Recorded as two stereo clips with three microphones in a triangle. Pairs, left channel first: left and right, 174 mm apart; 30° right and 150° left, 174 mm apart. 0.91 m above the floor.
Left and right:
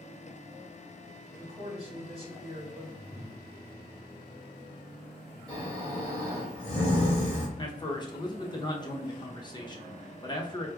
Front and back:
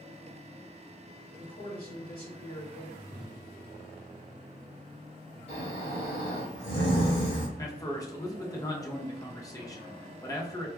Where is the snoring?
20° right, 1.8 m.